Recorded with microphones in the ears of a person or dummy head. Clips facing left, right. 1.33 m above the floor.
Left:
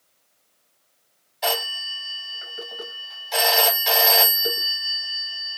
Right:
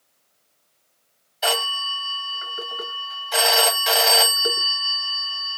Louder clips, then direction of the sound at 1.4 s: Right 1 dB; 5° right (ahead or behind).